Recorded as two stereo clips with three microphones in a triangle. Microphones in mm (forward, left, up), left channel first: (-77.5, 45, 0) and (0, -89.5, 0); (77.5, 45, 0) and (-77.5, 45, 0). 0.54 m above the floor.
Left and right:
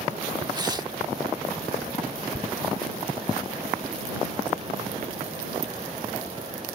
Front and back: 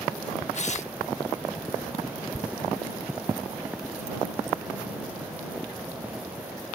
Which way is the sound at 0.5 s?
10° right.